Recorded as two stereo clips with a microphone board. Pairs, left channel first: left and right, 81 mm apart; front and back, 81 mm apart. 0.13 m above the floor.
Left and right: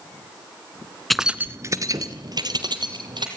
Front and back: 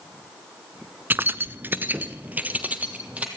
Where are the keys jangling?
175° left, 0.8 m; by 3.3 s 110° right, 3 m.